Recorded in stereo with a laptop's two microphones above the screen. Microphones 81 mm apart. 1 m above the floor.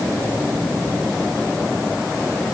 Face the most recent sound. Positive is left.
No sound to turn to.